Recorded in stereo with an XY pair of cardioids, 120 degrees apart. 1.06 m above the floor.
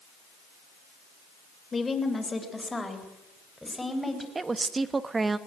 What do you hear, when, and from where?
1.7 s a woman speaking: 20° left, 3.5 m; by 4.2 s 5° left, 5 m
4.3 s a woman speaking: 25° right, 1.2 m